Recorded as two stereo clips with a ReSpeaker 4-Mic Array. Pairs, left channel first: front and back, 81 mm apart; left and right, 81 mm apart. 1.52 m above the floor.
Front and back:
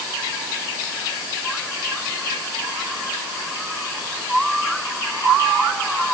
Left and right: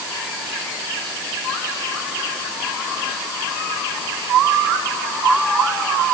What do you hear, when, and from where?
Only background noise.